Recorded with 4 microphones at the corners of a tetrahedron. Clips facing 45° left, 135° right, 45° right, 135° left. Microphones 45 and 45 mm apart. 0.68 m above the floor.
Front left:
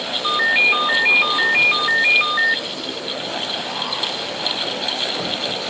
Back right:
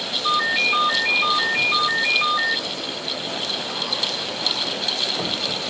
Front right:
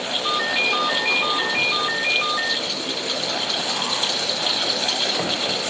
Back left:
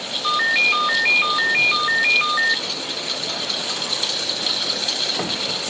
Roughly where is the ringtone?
Left.